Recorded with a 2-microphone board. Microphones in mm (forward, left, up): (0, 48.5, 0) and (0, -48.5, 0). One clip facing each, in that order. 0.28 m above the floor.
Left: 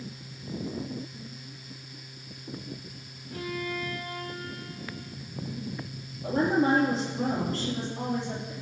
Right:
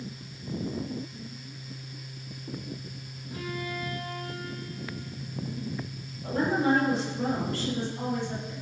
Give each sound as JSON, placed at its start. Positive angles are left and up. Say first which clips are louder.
{"t": 3.3, "sound": "a violin", "louder": "left 2 dB", "side_deg": -10, "distance_m": 6.0}
{"t": 6.2, "sound": "a woman speaking", "louder": "left 1 dB", "side_deg": 25, "distance_m": 5.5}